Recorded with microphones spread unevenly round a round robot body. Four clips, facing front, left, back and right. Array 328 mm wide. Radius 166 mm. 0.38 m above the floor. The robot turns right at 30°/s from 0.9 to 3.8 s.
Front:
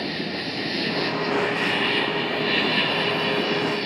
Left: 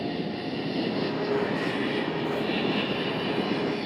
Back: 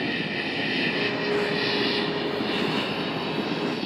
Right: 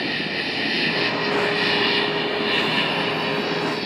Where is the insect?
100° right, 2 m; by 3.9 s 15° right, 2 m.